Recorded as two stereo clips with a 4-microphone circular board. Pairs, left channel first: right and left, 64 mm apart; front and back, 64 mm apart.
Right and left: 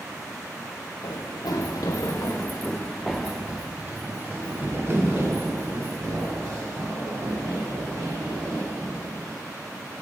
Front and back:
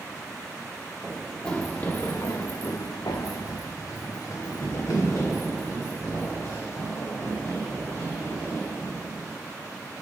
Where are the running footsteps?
80° right, 1.0 m; by 9.3 s 55° left, 3.5 m.